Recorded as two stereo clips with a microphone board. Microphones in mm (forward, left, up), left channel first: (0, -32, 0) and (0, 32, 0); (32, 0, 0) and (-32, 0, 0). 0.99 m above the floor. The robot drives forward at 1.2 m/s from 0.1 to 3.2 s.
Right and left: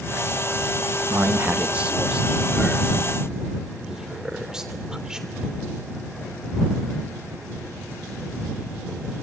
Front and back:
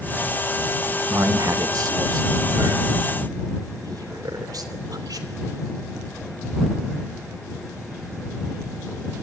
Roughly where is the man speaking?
Behind left.